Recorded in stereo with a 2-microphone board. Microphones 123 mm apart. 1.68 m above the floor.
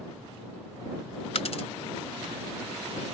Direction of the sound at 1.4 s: 55° left (ahead or behind).